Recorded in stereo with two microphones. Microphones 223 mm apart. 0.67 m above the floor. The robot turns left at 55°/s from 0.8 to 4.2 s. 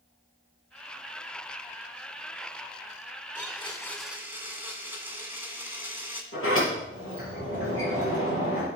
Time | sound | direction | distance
3.4 | a blender | 35° left | 2 m
6.3 | a sliding door | 65° left (ahead or behind) | 6 m